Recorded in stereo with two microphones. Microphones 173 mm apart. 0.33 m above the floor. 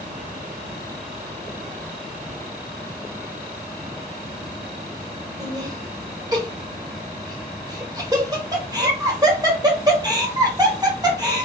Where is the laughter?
20° right (ahead or behind), 0.9 m.